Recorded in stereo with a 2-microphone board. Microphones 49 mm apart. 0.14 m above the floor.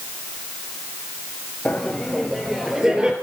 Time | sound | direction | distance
1.6 | laughter | 15° left (ahead or behind) | 3 m